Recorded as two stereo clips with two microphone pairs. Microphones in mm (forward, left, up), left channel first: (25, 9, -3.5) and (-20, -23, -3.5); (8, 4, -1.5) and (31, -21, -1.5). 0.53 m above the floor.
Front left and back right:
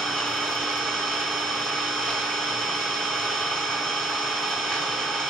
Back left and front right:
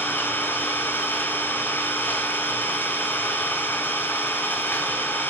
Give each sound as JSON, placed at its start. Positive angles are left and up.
{"t": 0.0, "sound": "an engine running", "azimuth_deg": 110, "distance_m": 1.7}